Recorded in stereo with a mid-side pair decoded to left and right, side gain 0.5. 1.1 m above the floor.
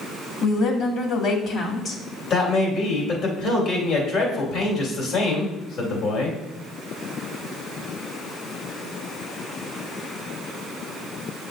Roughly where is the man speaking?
Ahead left.